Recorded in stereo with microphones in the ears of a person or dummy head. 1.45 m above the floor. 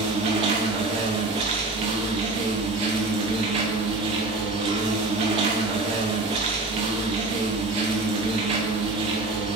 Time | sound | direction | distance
0.0 | an insect | 30° right (ahead or behind) | 0.8 m